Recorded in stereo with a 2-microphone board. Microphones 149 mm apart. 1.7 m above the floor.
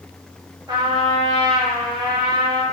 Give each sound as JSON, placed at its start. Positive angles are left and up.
{"t": 0.7, "sound": "a trumpet", "side_deg": -30, "distance_m": 0.8}